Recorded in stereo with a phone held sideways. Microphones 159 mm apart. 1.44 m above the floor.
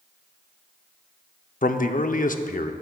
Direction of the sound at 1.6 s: 60° left (ahead or behind).